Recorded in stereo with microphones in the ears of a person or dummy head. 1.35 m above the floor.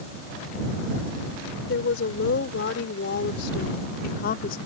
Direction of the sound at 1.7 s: 70° left (ahead or behind).